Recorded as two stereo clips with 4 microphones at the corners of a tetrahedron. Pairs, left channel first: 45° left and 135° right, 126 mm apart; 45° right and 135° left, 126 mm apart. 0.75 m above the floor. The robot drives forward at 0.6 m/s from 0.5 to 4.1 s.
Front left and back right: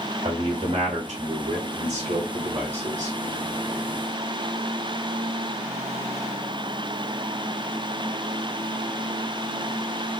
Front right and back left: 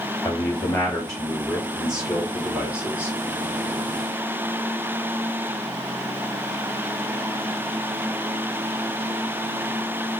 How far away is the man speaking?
About 1.3 m.